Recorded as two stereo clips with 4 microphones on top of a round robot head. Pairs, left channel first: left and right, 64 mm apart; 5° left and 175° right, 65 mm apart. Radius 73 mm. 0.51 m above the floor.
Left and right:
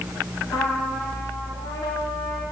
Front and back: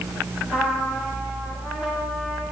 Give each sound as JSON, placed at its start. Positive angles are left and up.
{"t": 0.5, "sound": "a trumpet", "azimuth_deg": 110, "distance_m": 7.5}